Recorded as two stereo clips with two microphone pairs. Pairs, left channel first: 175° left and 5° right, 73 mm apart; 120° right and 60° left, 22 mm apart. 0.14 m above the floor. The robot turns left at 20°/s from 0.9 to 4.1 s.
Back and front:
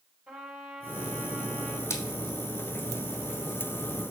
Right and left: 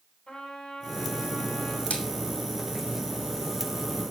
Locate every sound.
0.3 s a trumpet: 85° right, 1.5 m; by 1.8 s 105° right, 1.5 m
1.9 s a splash: 135° right, 1.5 m; by 2.0 s 140° right, 1.5 m